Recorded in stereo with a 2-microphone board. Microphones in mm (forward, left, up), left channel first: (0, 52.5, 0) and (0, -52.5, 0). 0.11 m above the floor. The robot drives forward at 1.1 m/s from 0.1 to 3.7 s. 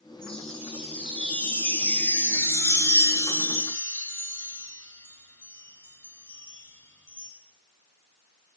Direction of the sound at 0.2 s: 10° left (ahead or behind).